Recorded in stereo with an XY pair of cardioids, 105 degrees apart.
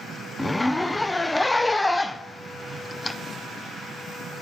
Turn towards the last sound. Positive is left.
turn(degrees=10)